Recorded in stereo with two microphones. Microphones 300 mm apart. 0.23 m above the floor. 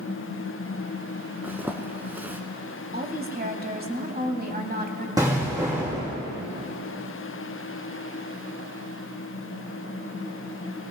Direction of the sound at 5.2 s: 10° right (ahead or behind).